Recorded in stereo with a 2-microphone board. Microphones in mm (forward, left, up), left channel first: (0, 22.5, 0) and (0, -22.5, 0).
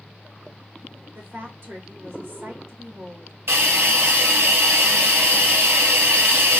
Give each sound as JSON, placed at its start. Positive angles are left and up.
{"t": 1.1, "sound": "a woman speaking", "side_deg": -60, "distance_m": 2.5}
{"t": 3.5, "sound": "a hiss", "side_deg": -70, "distance_m": 1.9}